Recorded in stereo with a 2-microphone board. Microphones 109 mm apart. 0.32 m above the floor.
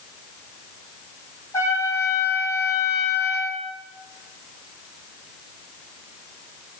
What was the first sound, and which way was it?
A trumpet, 25° left (ahead or behind).